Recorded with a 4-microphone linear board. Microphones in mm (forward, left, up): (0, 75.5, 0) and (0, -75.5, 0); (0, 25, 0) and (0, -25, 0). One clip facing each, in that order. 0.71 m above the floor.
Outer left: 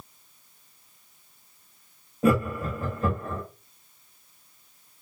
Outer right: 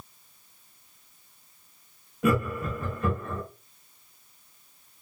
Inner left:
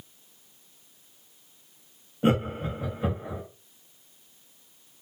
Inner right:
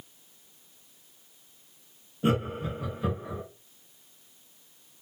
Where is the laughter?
35° left (ahead or behind), 1.3 m.